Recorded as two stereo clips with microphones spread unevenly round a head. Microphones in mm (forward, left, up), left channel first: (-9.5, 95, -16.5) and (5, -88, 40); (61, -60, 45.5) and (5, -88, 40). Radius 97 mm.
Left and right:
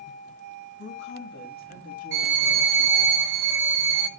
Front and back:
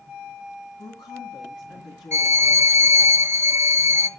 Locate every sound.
0.8 s a woman speaking: 60° left, 3 m; by 3.1 s 25° left, 3 m
2.1 s a violin: 110° right, 0.8 m